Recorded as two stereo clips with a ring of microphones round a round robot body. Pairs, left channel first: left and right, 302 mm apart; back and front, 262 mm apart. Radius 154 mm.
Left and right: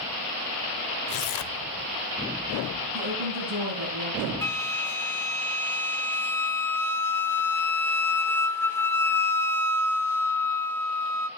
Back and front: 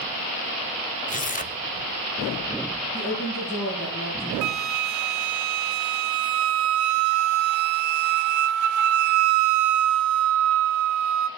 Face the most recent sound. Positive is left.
turn(degrees=10)